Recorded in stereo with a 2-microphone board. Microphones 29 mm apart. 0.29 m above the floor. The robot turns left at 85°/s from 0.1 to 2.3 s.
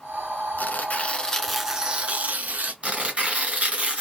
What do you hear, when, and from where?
0.6 s tearing paper: 85° left, 0.7 m; by 2.7 s 65° right, 0.7 m
2.8 s tearing paper: 40° right (ahead or behind), 1.9 m